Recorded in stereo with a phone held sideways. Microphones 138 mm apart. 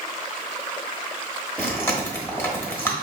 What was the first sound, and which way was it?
Chewing, 15° left (ahead or behind).